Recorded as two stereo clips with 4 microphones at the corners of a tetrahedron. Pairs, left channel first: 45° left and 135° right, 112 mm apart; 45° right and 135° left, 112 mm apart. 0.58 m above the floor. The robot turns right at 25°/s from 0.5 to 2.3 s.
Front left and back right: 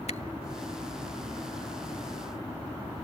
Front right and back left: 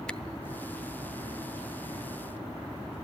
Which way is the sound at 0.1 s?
35° left.